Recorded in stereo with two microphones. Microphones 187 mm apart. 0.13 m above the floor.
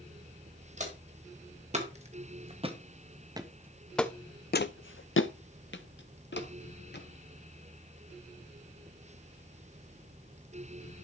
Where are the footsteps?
40° right (ahead or behind), 3.5 m; by 7.0 s 60° left (ahead or behind), 2.5 m.